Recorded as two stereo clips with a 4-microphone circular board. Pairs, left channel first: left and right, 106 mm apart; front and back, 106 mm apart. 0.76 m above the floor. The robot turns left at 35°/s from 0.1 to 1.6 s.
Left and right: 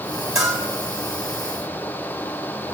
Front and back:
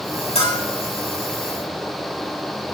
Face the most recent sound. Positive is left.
turn(degrees=-50)